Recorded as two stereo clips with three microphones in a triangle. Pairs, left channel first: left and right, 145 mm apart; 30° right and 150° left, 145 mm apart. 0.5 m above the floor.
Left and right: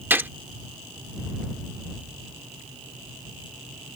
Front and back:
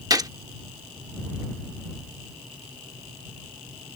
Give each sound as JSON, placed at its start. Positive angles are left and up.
{"t": 0.1, "sound": "a gunshot", "azimuth_deg": -160}